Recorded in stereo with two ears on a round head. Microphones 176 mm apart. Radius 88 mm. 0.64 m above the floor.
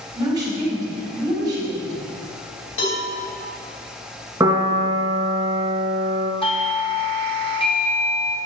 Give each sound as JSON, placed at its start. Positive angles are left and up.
{"t": 0.1, "sound": "a woman speaking", "side_deg": -20, "distance_m": 3.5}
{"t": 2.8, "sound": "a cowbell", "side_deg": 70, "distance_m": 2.0}
{"t": 4.4, "sound": "a piano", "side_deg": -15, "distance_m": 1.4}
{"t": 6.4, "sound": "a doorbell", "side_deg": 25, "distance_m": 1.0}